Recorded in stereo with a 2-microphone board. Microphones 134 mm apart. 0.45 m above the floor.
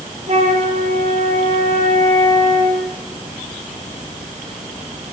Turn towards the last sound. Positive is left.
turn(degrees=-50)  # may be behind; listen again after turning